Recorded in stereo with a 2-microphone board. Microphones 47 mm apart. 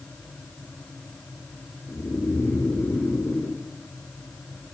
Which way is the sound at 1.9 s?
70° left (ahead or behind).